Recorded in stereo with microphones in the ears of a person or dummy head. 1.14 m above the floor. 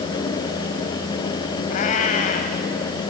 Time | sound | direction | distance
1.7 | a cat meowing | 40° left (ahead or behind) | 1.6 m